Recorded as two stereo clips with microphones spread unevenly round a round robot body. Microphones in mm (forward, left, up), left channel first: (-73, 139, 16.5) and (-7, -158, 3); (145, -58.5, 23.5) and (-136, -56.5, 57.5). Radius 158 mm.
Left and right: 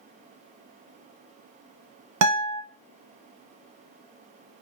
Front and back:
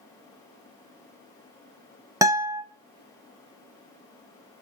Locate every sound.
2.2 s a guitar: 100° right, 0.7 m